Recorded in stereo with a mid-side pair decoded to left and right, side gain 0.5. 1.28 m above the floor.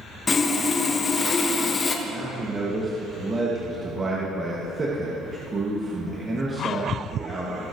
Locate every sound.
0.3 s sawing: 35° left, 1.2 m
2.0 s a man speaking: 30° right, 2 m